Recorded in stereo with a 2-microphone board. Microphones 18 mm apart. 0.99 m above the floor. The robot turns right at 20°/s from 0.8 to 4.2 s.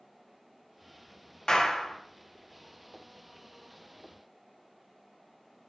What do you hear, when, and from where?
1.5 s a clap: 50° left (ahead or behind), 1.8 m; by 2.0 s 40° left (ahead or behind), 1.8 m